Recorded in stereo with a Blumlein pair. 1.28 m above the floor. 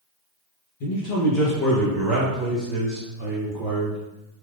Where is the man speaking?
45° left, 0.7 m; by 4.0 s 15° right, 2 m.